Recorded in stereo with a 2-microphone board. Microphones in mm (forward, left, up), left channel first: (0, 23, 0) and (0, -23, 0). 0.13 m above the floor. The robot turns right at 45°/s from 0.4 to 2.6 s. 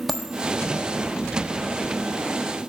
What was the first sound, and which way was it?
A dropped coin, centre (ahead or behind).